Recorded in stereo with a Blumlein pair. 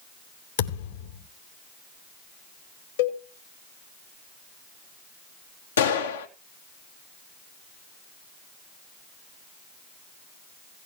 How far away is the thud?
About 3 m.